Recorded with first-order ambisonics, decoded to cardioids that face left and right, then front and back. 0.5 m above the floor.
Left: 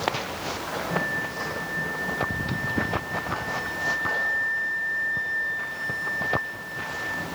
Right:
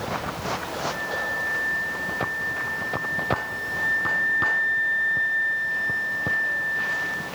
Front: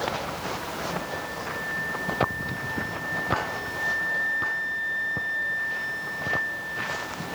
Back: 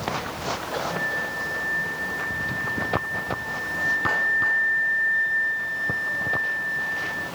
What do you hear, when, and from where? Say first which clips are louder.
0.9 s a flute: even, back 5 dB; 130° left, 7.5 m